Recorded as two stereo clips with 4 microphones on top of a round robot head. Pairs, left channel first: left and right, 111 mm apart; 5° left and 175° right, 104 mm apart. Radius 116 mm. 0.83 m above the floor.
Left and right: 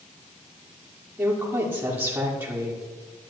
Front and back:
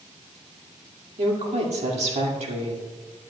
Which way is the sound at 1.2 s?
160° right.